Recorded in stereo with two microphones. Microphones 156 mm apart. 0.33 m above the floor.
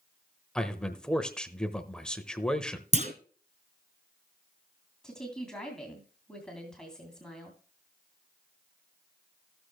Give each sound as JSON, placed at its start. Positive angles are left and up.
{"t": 0.6, "sound": "a man speaking", "side_deg": 5, "distance_m": 0.9}
{"t": 2.9, "sound": "a clunk", "side_deg": -50, "distance_m": 1.1}
{"t": 5.0, "sound": "a woman speaking", "side_deg": 5, "distance_m": 2.5}